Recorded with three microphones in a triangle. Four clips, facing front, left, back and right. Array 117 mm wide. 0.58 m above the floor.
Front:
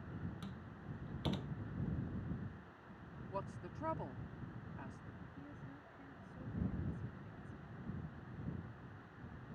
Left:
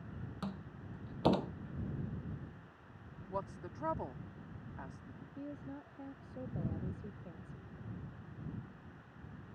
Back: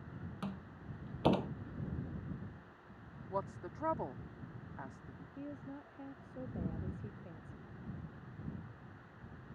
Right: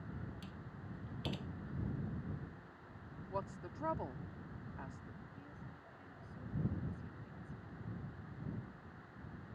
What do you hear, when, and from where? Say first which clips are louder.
0.4 s a door slam: left 6 dB, back 5 dB; 135° left
3.3 s a woman speaking: left 2 dB, back 6 dB; 170° left
5.4 s a woman speaking: left 9 dB, back 12 dB; 135° left